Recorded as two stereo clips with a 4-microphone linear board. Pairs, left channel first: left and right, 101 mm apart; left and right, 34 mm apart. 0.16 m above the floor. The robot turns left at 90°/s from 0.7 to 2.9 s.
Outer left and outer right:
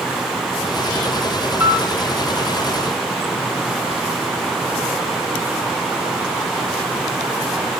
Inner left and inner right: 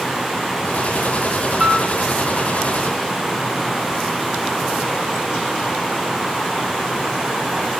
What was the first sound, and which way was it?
A piano, 20° right (ahead or behind).